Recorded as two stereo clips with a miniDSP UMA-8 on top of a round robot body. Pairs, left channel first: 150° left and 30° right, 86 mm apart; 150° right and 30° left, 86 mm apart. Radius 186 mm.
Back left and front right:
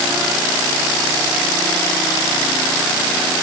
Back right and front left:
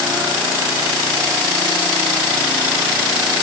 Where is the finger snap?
No finger snap in this recording.